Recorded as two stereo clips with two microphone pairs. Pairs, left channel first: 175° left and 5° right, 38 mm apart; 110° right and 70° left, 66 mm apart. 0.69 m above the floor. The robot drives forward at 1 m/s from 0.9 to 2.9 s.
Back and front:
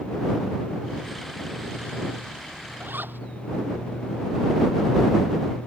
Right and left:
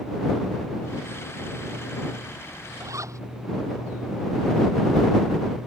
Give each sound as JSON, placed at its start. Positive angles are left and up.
{"t": 2.8, "sound": "a zipper", "azimuth_deg": 30}